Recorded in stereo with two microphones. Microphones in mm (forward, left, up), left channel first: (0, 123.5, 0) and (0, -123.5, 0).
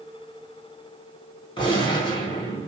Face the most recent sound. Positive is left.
turn(degrees=20)  # may be behind; listen again after turning